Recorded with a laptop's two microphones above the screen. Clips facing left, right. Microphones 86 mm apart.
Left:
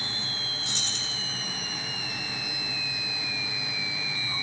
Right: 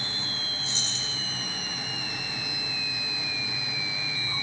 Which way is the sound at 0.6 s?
65° left (ahead or behind).